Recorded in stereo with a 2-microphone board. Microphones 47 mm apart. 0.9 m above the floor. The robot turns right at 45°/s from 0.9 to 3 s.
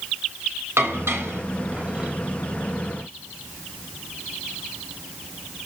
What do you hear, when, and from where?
0.8 s dishes clattering: 75° right (ahead or behind), 3 m; by 2.1 s 20° right (ahead or behind), 3 m